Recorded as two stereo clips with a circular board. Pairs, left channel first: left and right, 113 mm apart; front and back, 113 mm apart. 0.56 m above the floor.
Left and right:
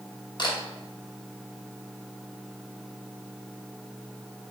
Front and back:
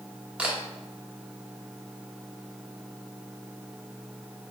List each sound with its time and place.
0.4 s a camera shutter: 105° left, 0.8 m